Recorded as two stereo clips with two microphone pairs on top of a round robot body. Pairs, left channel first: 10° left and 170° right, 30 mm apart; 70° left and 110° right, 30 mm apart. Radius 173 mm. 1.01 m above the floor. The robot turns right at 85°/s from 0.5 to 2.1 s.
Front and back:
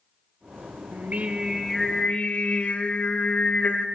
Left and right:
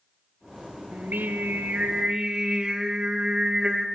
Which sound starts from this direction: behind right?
Singing, at 0.9 s.